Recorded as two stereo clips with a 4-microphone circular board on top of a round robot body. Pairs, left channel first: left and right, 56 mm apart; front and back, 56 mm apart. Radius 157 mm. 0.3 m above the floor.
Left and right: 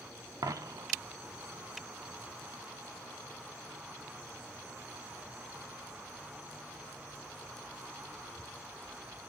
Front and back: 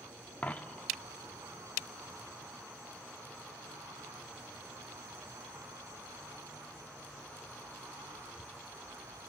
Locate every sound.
0.4 s a dropped coin: 65° right, 0.6 m